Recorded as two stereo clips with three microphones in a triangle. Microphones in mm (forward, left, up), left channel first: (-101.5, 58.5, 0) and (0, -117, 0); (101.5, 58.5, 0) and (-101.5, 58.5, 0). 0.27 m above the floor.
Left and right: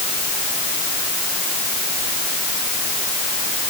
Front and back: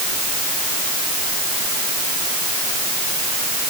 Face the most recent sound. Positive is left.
No sound to turn to.